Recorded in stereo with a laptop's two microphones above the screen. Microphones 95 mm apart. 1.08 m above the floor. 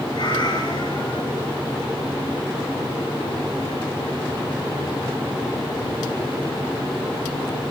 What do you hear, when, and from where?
0.1 s a cat meowing: 50° left (ahead or behind), 2.5 m